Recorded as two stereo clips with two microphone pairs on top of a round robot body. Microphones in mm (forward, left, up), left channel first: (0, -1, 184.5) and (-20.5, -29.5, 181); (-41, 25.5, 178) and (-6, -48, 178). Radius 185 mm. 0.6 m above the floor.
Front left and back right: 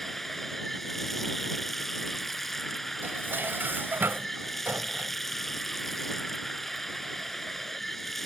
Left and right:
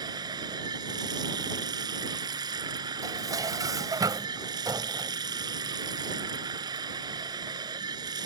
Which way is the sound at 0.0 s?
30° right.